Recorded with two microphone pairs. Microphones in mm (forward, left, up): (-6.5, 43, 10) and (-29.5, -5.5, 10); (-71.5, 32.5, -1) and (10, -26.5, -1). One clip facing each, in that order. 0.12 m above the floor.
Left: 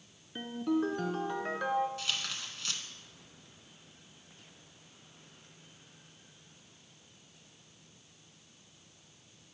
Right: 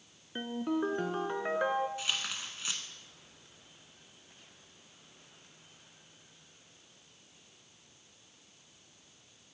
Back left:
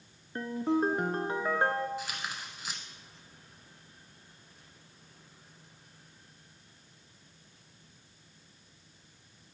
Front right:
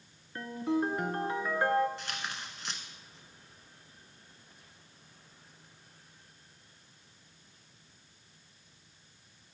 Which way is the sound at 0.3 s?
175° right.